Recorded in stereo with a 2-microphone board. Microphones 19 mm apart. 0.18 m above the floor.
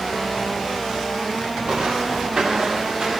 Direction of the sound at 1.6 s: 65° right (ahead or behind).